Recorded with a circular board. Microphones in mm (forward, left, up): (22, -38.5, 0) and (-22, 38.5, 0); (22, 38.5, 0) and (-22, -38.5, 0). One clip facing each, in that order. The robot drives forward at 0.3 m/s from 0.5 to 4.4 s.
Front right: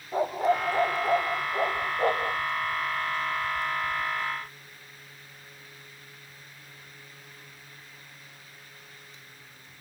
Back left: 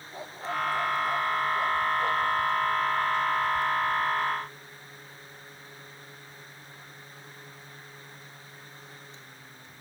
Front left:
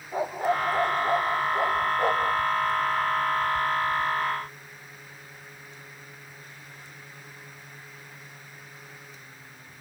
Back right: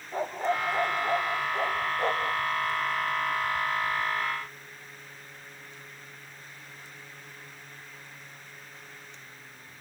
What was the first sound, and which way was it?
A dog barking, 20° right.